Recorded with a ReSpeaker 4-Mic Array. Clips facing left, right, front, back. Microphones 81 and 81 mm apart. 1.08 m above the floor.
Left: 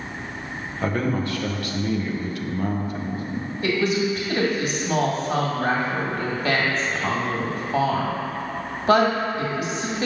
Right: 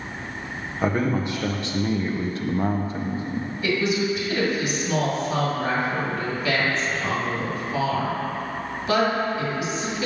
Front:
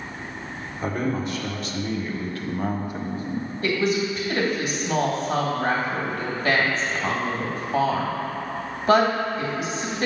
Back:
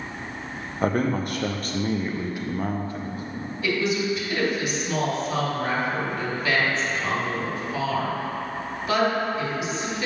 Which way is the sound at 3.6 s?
50° left.